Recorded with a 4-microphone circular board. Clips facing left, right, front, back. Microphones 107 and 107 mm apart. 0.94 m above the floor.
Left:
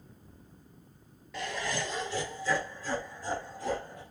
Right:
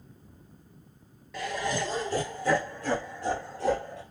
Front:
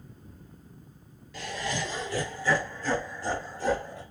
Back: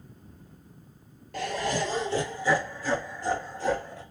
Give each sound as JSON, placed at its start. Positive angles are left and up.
{"t": 1.3, "sound": "laughter", "azimuth_deg": 180, "distance_m": 0.5}